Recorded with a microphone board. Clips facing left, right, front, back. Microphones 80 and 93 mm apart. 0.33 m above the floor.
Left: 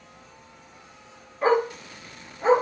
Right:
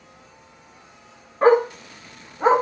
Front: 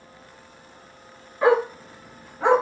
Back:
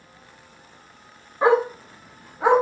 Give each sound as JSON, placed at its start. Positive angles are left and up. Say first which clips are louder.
{"t": 1.4, "sound": "a dog barking", "louder": "right 6 dB, back 1 dB", "azimuth_deg": -120, "distance_m": 1.7}